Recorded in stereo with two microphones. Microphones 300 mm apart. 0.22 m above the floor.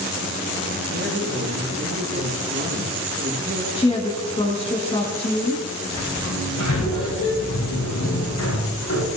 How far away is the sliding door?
About 7 m.